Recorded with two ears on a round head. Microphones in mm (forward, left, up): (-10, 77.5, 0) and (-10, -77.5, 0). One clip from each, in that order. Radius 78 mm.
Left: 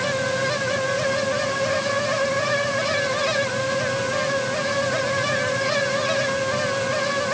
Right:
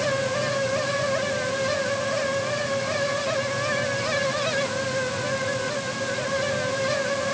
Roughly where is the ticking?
No ticking in this recording.